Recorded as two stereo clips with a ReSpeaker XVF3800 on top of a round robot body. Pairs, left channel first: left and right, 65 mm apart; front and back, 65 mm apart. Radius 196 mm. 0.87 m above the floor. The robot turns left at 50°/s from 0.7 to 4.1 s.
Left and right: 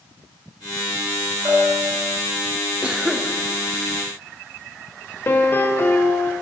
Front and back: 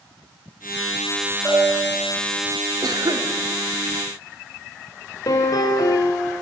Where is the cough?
160° right, 3.5 m; by 3.3 s 175° left, 3.5 m.